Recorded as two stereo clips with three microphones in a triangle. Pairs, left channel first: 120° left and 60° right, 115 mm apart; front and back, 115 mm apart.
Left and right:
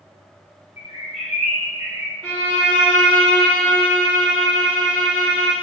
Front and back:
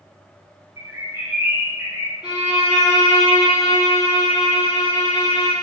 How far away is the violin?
About 1.3 m.